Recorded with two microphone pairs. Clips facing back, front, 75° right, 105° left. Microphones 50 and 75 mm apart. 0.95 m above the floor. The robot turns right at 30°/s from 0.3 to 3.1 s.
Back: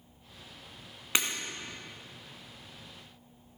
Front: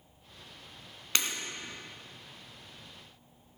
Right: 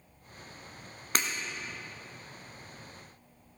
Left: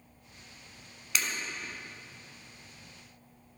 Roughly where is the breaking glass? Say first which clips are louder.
Back 2 dB, right 2 dB; right.